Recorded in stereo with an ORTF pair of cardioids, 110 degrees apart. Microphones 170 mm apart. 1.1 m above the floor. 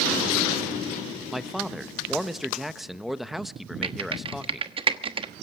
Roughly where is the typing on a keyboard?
Ahead right.